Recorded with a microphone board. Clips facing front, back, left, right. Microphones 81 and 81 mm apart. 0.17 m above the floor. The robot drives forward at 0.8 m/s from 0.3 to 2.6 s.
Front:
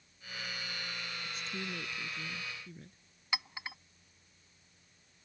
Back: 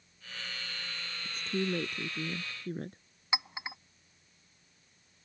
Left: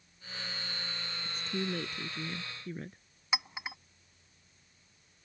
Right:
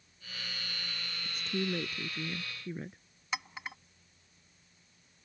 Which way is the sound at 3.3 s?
160° left.